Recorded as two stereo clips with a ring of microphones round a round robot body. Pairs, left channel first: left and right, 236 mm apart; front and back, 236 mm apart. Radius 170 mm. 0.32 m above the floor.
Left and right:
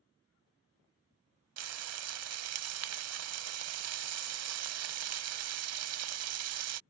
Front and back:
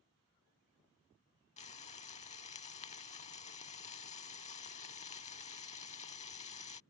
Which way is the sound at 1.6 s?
70° right.